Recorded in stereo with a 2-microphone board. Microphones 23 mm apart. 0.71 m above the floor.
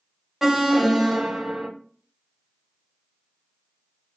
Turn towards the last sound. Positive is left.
turn(degrees=-15)  # may be behind; listen again after turning